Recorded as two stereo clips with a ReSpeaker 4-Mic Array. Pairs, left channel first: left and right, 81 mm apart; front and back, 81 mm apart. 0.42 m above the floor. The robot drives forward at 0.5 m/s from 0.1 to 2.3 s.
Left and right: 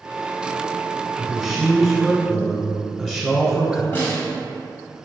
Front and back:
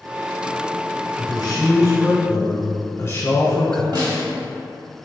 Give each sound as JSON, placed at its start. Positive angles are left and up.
{"t": 1.2, "sound": "a man speaking", "azimuth_deg": 0, "distance_m": 1.4}
{"t": 3.9, "sound": "a snare drum", "azimuth_deg": 150, "distance_m": 1.0}